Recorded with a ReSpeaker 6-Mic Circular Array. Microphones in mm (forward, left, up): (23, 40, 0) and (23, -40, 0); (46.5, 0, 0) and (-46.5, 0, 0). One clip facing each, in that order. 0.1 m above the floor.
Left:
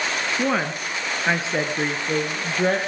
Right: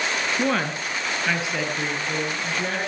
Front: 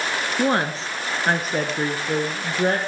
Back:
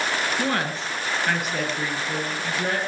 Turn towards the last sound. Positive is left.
turn(degrees=45)